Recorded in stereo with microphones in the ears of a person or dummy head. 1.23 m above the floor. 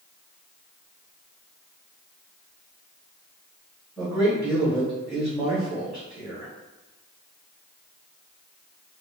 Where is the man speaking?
5° right (ahead or behind), 0.9 m.